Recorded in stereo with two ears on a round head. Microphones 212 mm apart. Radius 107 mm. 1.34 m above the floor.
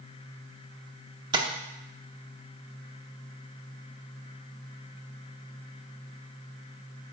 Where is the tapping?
20° right (ahead or behind), 0.9 m.